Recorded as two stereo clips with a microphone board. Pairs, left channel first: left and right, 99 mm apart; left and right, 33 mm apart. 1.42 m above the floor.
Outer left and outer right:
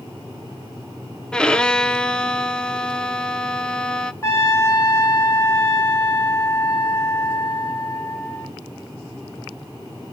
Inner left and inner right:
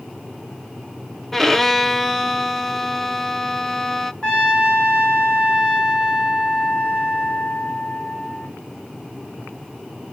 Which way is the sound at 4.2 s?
25° left (ahead or behind).